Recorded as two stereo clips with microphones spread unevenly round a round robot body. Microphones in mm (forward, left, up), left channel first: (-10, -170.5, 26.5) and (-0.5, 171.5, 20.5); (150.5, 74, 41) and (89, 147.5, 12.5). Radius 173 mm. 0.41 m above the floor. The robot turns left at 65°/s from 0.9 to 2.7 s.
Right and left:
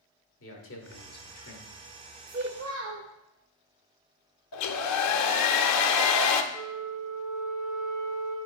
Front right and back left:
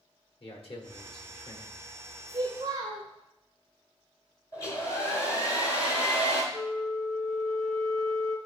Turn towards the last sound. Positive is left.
turn(degrees=50)